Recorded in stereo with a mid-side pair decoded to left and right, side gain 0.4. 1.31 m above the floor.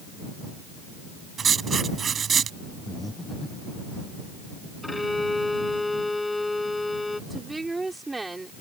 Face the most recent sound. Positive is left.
turn(degrees=-20)